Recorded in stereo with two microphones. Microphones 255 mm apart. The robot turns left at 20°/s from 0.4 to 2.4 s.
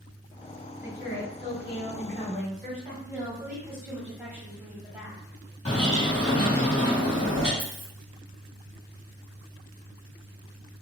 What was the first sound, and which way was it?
A woman speaking, 110° right.